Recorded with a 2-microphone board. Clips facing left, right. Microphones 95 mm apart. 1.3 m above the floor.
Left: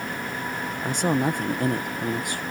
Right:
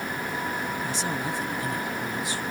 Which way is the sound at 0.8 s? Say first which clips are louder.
Left 6 dB; 55° left (ahead or behind).